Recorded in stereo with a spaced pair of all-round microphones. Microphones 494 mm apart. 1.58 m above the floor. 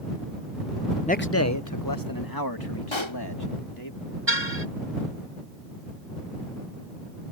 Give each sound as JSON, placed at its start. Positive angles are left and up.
{"t": 1.1, "sound": "a man speaking", "side_deg": 10}
{"t": 2.9, "sound": "a pop", "side_deg": 65}
{"t": 4.3, "sound": "a car horn", "side_deg": -60}